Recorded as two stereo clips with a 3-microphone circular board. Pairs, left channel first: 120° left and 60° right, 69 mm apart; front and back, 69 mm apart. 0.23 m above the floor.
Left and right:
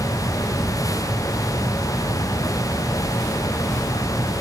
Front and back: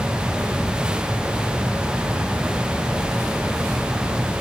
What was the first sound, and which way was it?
Only background noise.